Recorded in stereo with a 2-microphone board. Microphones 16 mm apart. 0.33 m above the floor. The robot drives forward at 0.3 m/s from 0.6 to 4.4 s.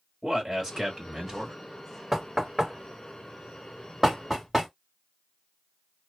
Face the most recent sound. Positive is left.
turn(degrees=-15)  # may be behind; listen again after turning